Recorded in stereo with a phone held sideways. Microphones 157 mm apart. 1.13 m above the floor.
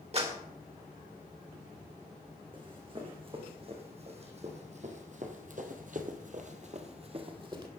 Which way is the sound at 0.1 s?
40° right (ahead or behind).